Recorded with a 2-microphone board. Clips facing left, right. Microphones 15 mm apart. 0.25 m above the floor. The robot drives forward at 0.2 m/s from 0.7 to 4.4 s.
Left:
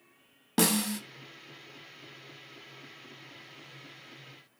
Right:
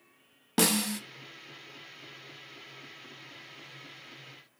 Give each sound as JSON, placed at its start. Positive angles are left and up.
{"t": 0.6, "sound": "a snare drum", "side_deg": -5, "distance_m": 0.6}